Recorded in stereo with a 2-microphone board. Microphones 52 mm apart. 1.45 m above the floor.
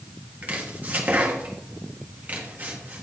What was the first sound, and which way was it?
Chopping, 30° right (ahead or behind).